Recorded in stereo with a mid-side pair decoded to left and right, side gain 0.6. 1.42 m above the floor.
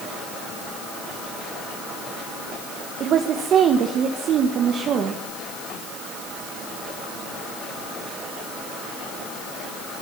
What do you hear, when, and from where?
3.0 s a woman speaking: 50° right, 1.7 m